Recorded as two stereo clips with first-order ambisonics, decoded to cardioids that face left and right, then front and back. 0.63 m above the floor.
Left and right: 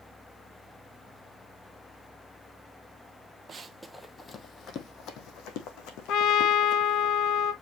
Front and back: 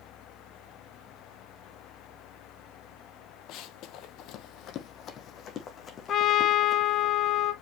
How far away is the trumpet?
About 1.0 m.